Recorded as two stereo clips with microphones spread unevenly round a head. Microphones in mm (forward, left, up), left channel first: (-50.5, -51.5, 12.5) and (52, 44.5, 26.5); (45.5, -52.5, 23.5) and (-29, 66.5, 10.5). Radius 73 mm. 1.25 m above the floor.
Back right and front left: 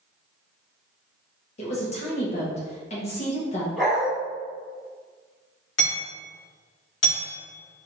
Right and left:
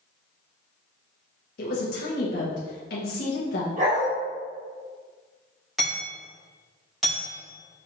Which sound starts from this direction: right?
A woman speaking, at 1.6 s.